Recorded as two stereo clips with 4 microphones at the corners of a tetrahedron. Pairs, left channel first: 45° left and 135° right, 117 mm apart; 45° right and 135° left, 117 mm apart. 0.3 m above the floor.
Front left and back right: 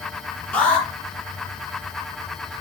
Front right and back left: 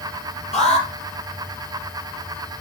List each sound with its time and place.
0.5 s an alarm: 35° right, 5.5 m